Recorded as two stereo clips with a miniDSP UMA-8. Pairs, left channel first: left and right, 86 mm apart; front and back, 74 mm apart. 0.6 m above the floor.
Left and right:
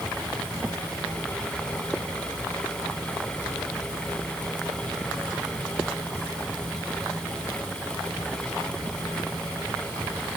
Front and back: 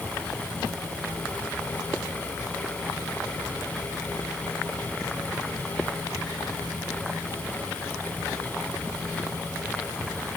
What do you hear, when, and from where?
Only background noise.